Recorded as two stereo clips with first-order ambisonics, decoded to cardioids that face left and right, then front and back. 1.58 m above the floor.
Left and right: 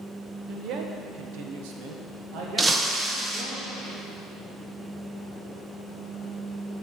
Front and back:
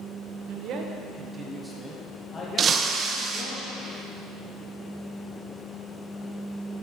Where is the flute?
I don't hear a flute.